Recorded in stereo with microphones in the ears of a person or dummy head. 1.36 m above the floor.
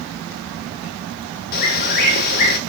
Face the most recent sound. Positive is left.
turn(degrees=55)  # may be behind; listen again after turning